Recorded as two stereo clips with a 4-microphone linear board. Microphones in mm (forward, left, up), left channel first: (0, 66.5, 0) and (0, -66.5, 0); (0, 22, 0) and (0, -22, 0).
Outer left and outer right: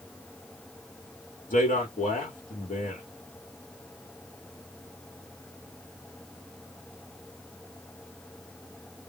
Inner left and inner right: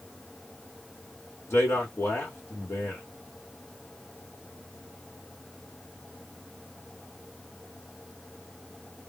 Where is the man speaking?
75° left (ahead or behind), 1.0 m.